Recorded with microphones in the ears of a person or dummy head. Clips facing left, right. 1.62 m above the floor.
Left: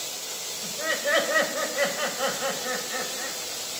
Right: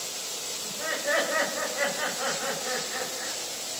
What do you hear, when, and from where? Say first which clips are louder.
0.6 s laughter: left 3 dB; 50° left (ahead or behind), 6.5 m; by 3.4 s 65° left (ahead or behind), 7 m